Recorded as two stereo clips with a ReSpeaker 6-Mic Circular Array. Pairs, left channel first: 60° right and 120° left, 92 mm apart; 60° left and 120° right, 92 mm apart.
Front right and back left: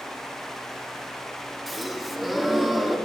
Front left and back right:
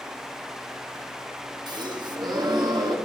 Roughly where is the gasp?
Behind right.